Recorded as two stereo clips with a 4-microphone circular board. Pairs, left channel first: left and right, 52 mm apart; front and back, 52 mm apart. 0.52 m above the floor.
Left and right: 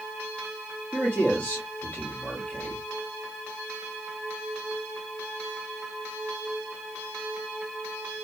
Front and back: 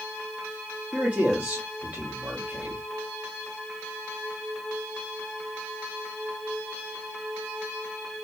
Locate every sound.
0.9 s a man speaking: 130° left, 1.4 m